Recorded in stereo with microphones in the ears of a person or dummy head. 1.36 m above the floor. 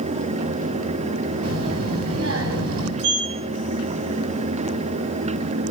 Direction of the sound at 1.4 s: 80° right.